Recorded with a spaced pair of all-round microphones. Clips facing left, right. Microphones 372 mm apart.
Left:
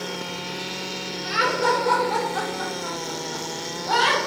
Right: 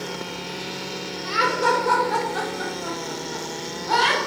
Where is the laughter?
5° right (ahead or behind), 0.7 m; by 4.2 s 30° right (ahead or behind), 1.1 m.